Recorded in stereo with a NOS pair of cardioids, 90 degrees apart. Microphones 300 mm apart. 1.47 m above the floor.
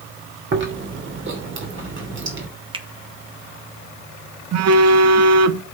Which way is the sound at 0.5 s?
40° right.